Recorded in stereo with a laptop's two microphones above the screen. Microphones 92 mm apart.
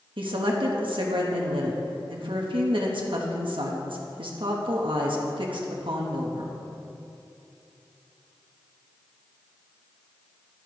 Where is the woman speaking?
70° right (ahead or behind), 1.3 m.